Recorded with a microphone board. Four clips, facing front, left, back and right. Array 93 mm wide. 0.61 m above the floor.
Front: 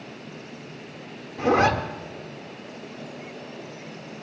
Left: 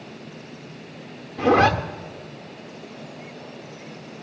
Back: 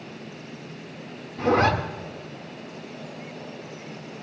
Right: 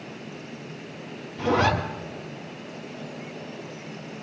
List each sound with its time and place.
1.4 s a zipper: 80° left, 1.8 m